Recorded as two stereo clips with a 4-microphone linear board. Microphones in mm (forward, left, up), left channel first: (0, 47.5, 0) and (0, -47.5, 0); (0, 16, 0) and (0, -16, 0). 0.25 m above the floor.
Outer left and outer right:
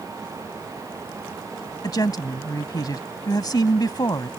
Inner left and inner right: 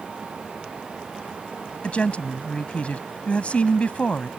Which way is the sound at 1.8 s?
45° left (ahead or behind).